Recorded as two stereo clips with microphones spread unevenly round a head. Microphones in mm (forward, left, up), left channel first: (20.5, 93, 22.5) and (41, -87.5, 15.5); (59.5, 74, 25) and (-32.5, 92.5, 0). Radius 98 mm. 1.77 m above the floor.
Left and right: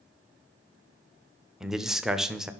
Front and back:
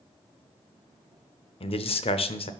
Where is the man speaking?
5° left, 0.6 m.